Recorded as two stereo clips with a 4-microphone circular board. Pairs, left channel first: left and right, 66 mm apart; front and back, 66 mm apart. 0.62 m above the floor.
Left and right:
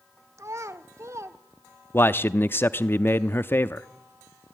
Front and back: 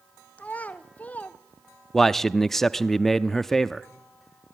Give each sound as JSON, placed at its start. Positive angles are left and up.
{"t": 0.4, "sound": "a child speaking", "azimuth_deg": -65, "distance_m": 1.3}
{"t": 1.9, "sound": "a man speaking", "azimuth_deg": 80, "distance_m": 0.7}